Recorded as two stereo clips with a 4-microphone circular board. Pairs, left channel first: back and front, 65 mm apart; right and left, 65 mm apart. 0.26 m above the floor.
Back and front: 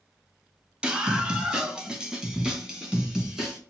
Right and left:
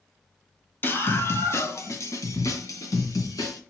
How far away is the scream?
About 1.3 m.